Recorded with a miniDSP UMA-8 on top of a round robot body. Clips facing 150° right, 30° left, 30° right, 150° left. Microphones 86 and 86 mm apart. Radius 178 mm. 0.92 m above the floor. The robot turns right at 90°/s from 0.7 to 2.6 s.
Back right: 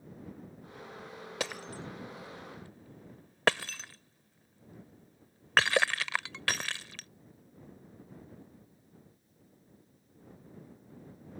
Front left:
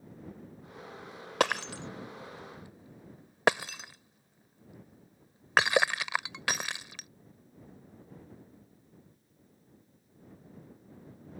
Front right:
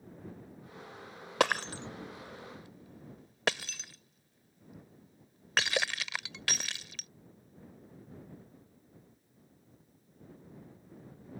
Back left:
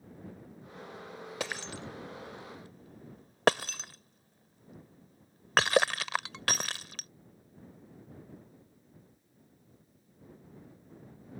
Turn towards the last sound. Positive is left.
turn(degrees=105)